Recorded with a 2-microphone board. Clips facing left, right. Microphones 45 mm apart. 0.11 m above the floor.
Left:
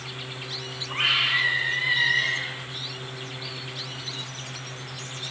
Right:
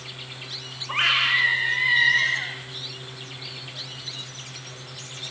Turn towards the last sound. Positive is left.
turn(degrees=-65)  # may be behind; listen again after turning